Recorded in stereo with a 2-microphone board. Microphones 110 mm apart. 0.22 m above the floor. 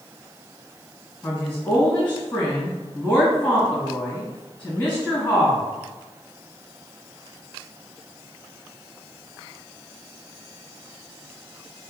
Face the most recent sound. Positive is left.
turn(degrees=15)  # may be behind; listen again after turning